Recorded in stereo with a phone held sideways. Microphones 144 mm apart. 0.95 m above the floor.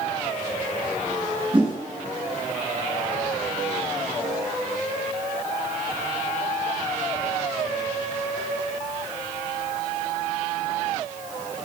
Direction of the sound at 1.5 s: 35° right (ahead or behind).